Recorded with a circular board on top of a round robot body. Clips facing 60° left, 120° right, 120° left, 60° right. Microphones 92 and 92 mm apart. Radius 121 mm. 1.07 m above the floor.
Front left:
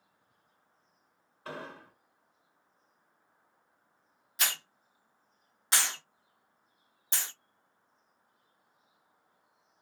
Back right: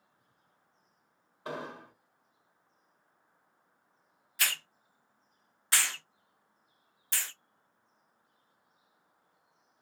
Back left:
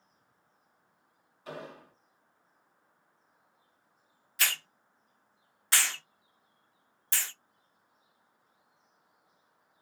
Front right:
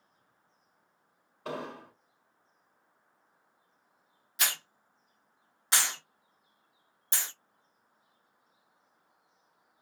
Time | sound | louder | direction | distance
1.4 | an explosion | back right 3 dB, front right 5 dB | 50° right | 1.9 m
4.4 | a hiss | even, back left 1 dB | straight ahead | 0.6 m